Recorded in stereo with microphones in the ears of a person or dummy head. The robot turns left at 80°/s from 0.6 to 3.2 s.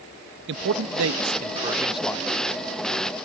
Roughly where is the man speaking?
Ahead right.